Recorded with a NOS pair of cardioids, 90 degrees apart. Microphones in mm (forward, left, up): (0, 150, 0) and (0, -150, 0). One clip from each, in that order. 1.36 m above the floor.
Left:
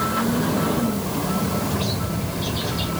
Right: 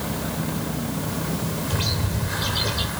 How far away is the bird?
About 4 m.